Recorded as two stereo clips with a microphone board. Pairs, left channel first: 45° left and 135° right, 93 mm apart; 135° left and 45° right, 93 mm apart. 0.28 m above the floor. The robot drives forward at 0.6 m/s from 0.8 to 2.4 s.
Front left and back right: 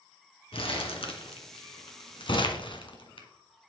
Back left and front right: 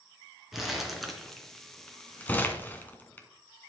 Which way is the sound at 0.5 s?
45° left.